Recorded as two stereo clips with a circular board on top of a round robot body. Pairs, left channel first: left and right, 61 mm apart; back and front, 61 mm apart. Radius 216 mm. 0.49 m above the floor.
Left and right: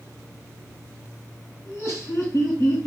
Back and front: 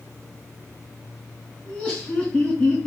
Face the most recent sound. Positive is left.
turn(degrees=110)